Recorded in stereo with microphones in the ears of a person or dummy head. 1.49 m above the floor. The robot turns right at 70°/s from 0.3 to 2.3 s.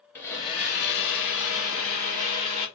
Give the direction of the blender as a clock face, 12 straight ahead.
11 o'clock.